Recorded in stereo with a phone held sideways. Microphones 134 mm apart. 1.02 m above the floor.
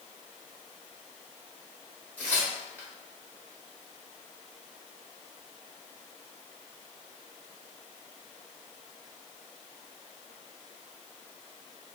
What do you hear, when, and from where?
2.2 s tearing paper: 10° left (ahead or behind), 1.5 m